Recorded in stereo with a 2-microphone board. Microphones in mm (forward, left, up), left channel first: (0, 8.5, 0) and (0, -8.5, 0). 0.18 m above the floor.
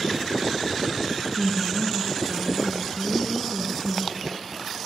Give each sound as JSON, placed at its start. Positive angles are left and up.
{"t": 1.4, "sound": "a woman speaking", "side_deg": -35, "distance_m": 1.6}